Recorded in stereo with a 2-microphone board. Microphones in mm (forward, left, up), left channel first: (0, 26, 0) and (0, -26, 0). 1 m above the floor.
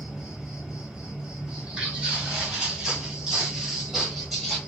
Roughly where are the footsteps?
Centre.